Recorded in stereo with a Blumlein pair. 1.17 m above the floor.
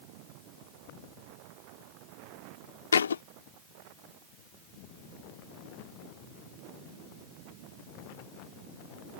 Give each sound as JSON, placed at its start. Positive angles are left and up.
{"t": 2.9, "sound": "a thud", "azimuth_deg": 70}